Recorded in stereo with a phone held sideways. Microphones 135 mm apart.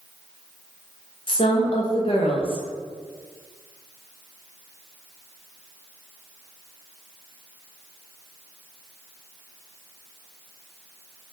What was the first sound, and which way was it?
A woman speaking, 40° left (ahead or behind).